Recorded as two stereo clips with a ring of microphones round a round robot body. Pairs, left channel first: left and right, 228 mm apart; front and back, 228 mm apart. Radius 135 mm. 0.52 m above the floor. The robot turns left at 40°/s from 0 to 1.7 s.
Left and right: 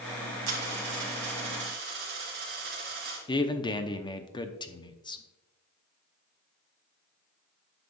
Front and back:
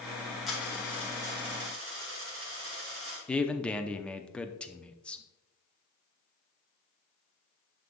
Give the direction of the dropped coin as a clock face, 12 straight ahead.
3 o'clock.